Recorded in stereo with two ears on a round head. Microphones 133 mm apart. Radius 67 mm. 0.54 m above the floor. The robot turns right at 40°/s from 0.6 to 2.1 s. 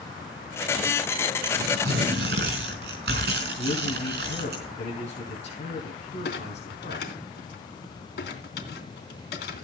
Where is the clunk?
85° left, 3 m.